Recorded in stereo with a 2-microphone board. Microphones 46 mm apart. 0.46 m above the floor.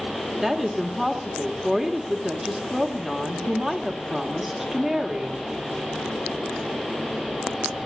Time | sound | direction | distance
0.4 | a woman speaking | 5° right (ahead or behind) | 1.4 m